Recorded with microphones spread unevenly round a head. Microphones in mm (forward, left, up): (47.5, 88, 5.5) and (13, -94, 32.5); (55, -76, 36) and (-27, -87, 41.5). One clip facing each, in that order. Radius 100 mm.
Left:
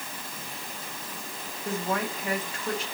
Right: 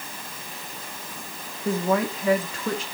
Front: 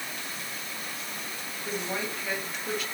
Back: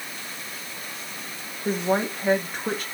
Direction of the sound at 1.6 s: 125° right.